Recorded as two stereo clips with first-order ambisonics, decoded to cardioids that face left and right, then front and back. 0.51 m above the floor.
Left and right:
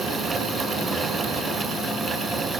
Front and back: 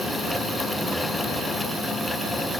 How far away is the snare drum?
I don't hear a snare drum.